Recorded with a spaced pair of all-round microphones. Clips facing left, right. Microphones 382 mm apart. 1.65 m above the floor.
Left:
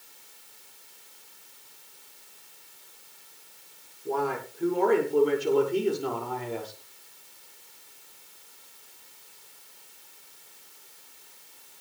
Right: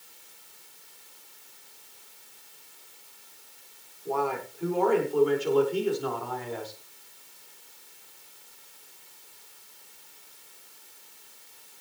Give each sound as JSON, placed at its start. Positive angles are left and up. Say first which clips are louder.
{"t": 4.0, "sound": "a man speaking", "louder": "even", "side_deg": 25, "distance_m": 6.5}